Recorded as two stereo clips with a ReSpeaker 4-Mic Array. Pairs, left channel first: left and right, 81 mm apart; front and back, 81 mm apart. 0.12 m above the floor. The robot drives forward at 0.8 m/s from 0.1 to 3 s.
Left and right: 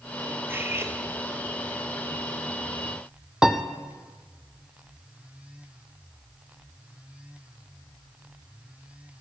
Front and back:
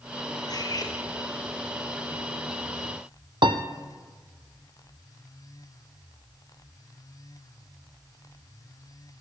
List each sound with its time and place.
0.5 s cutlery clinking: 30° right, 1.7 m; by 0.9 s 35° right, 1.4 m
3.4 s a piano: 170° right, 0.8 m